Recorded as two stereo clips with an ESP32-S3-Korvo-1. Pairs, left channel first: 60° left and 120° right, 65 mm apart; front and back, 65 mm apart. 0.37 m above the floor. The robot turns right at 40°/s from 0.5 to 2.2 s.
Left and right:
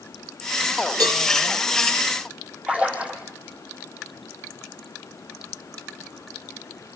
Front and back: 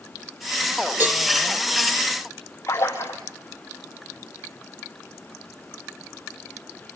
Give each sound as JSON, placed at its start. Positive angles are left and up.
{"t": 1.0, "sound": "a cowbell", "azimuth_deg": -120, "distance_m": 3.5}
{"t": 2.7, "sound": "a splash", "azimuth_deg": -50, "distance_m": 5.5}